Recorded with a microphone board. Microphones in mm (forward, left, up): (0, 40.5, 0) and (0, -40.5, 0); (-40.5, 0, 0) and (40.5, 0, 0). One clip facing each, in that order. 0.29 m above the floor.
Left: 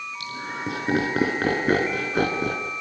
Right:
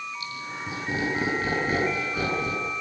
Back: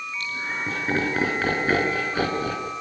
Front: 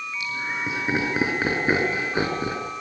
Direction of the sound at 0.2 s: 85° left.